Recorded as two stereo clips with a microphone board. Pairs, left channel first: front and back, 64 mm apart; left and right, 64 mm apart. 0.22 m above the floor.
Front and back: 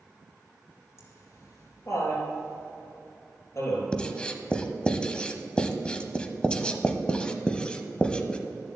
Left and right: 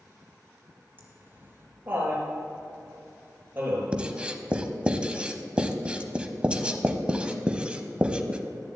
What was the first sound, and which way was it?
Laughter, 30° right.